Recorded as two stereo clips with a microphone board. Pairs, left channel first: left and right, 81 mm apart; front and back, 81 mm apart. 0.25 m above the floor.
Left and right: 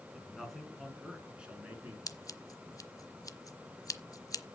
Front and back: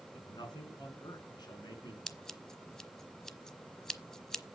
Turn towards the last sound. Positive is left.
turn(degrees=80)